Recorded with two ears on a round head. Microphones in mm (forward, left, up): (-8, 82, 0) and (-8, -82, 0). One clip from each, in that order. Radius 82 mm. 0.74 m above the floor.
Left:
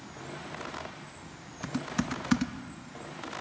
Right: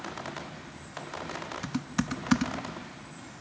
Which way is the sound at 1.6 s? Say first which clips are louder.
Left 3 dB; 5° right (ahead or behind).